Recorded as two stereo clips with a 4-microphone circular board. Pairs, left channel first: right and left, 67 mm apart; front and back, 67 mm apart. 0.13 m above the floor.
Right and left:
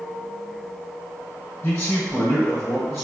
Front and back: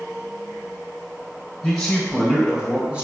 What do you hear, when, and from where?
1.6 s a man speaking: 60° right, 1.2 m; by 3.0 s 155° right, 1.2 m